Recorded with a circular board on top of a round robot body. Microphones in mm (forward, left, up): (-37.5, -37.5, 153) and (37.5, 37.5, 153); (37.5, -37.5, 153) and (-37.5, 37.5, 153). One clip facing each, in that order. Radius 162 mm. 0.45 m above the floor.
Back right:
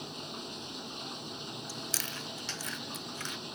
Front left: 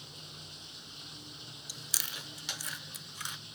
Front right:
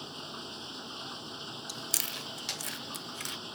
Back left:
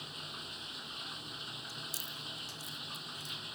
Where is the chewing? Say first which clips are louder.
Back right 7 dB, front right 6 dB; 30° right.